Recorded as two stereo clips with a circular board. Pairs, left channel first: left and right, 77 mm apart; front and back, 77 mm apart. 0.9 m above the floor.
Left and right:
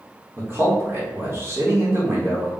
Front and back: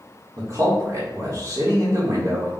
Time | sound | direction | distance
0.4 | a man speaking | 145° right | 1.1 m